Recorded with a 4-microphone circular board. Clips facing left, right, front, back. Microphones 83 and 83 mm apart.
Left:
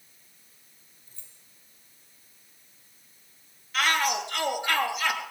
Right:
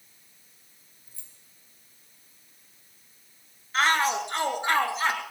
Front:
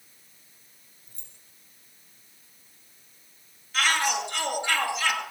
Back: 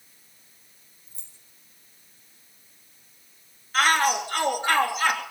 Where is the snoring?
I don't hear snoring.